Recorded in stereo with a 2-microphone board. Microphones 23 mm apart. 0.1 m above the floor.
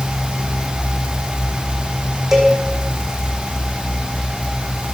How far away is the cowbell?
About 2.5 m.